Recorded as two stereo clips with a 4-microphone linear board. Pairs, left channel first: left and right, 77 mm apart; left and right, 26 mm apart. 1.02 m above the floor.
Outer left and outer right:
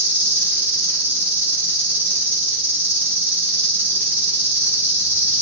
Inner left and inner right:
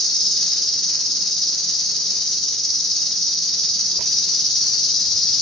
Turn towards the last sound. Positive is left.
turn(degrees=30)  # may be behind; listen again after turning